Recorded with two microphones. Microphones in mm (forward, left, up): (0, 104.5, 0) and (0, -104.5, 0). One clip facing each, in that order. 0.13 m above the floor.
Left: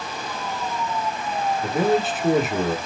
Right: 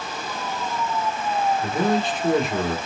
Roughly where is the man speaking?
Centre.